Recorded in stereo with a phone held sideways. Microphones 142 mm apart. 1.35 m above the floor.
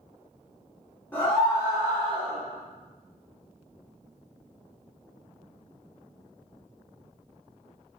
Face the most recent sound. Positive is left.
turn(degrees=-45)  # may be behind; listen again after turning